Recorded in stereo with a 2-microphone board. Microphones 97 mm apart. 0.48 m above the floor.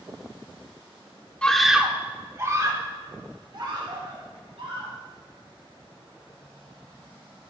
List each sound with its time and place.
1.4 s a scream: 10° left (ahead or behind), 1.2 m; by 4.9 s 60° right (ahead or behind), 4.5 m